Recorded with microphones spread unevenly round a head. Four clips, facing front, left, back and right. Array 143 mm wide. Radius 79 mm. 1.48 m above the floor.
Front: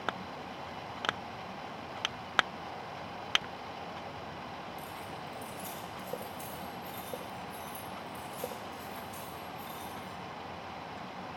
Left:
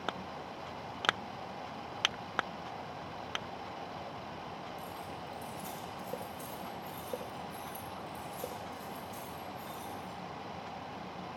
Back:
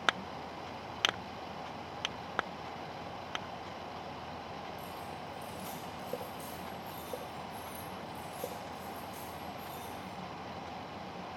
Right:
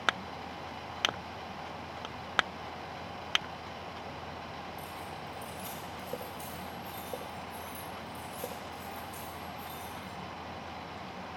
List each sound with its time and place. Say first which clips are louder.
4.8 s keys jangling: right 1 dB, even; straight ahead, 5 m; by 10.1 s 25° left, 9.5 m